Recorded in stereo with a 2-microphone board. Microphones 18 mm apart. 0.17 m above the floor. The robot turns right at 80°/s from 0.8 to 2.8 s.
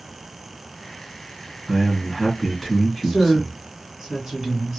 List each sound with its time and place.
1.7 s a man speaking: 15° right (ahead or behind), 1.7 m; by 3.6 s 15° left (ahead or behind), 1.7 m
3.0 s a woman speaking: 35° right (ahead or behind), 2 m